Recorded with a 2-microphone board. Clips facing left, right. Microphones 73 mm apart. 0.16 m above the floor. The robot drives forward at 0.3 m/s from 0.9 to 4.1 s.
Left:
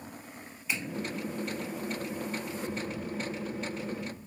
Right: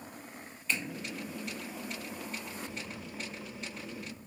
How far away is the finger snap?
About 0.8 m.